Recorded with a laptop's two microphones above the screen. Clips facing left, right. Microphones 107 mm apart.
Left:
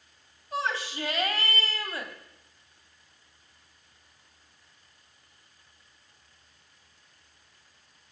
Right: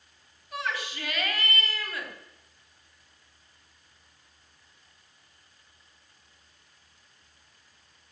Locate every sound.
0.5 s a shout: 30° left (ahead or behind), 2 m